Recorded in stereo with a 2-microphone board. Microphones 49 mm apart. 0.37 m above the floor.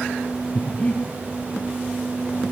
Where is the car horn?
No car horn in this recording.